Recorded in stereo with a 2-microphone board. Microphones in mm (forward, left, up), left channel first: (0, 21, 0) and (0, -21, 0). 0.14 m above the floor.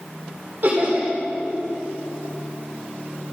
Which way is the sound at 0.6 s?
50° right (ahead or behind).